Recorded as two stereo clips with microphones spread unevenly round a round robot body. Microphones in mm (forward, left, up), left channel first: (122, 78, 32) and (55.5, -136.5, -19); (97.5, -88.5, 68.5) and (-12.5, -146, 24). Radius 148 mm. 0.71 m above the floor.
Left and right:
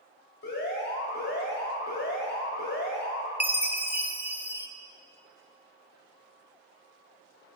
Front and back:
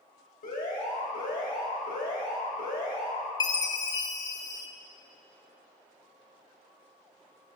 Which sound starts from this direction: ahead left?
An alarm, at 0.4 s.